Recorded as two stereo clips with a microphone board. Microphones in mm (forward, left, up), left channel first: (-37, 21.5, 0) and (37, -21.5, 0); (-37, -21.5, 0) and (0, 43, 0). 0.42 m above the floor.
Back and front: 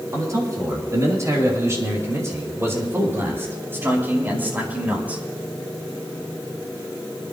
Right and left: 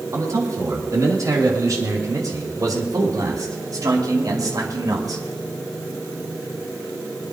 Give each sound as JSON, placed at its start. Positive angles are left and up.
{"t": 0.1, "sound": "a man speaking", "azimuth_deg": 20, "distance_m": 5.5}